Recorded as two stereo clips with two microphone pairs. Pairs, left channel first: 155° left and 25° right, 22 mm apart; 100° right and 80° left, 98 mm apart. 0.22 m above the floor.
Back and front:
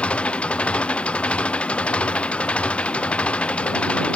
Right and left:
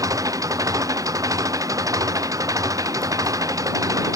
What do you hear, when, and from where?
0.0 s an engine running: 135° left